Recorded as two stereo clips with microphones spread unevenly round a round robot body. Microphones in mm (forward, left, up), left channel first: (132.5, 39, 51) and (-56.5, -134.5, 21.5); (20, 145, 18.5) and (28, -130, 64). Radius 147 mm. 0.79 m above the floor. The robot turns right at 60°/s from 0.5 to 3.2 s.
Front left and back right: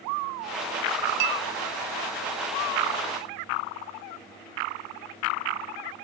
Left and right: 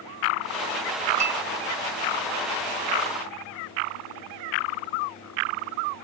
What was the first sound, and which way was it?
A clink, 160° right.